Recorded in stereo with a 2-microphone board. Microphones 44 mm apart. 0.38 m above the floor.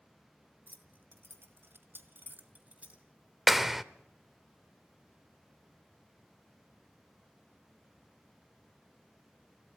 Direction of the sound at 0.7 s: 45° right (ahead or behind).